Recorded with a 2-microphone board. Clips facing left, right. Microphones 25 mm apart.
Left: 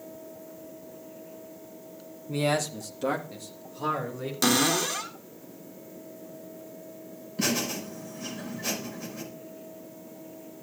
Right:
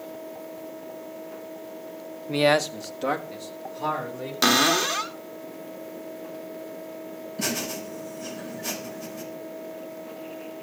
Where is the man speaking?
50° right (ahead or behind), 0.9 m; by 4.3 s centre (ahead or behind), 3 m.